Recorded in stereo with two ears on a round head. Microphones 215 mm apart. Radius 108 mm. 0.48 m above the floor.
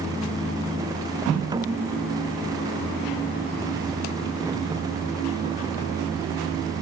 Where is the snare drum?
20° right (ahead or behind).